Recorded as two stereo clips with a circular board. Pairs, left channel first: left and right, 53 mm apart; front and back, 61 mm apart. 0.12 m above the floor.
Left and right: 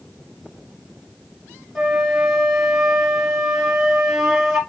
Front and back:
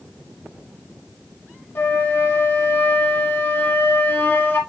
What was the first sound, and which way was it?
A flute, 5° right.